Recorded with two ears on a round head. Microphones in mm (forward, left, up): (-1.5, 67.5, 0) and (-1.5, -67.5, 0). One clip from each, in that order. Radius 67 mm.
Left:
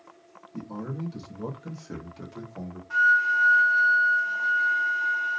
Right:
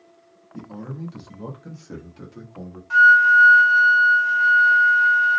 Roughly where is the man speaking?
Centre.